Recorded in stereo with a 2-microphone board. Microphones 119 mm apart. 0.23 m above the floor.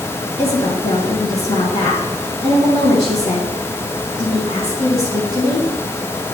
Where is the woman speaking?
55° left (ahead or behind), 2 m.